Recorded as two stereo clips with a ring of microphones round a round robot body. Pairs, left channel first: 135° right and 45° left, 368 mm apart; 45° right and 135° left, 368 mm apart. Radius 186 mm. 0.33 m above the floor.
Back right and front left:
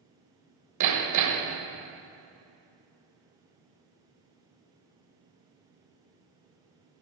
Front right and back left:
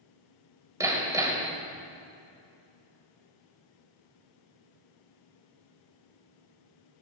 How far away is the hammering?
About 1.6 m.